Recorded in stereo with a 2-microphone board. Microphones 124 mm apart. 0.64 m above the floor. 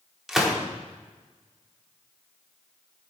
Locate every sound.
0.3 s a gunshot: centre (ahead or behind), 1.2 m